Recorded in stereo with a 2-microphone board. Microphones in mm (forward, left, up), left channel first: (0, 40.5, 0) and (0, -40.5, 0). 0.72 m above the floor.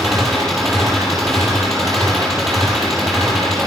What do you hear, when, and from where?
0.0 s an engine running: 5° left (ahead or behind), 7 m